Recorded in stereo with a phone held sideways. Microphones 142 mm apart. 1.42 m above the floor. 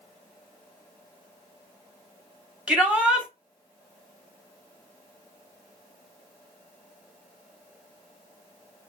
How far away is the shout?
About 1.1 m.